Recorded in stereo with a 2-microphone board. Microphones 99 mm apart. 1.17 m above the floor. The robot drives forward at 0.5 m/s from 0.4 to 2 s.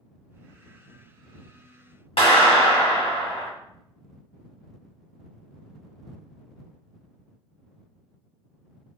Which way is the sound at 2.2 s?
75° left (ahead or behind).